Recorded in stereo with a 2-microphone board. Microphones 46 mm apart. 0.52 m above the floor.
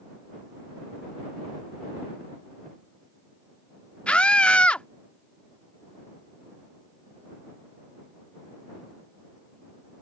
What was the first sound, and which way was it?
A scream, 25° left (ahead or behind).